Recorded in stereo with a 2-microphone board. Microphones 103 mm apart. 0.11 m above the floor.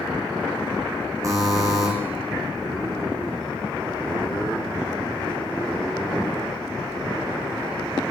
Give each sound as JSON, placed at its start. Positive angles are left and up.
{"t": 1.2, "sound": "a buzzer", "side_deg": -35, "distance_m": 1.6}